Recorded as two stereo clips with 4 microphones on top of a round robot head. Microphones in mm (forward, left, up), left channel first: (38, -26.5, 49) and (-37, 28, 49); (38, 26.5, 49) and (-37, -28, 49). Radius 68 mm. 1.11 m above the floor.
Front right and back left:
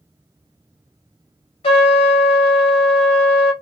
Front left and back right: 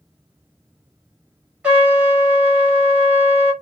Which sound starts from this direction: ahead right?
A trumpet, at 1.6 s.